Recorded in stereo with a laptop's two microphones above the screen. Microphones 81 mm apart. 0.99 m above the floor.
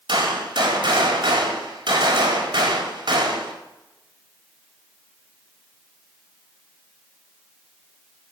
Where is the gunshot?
80° right, 4 m.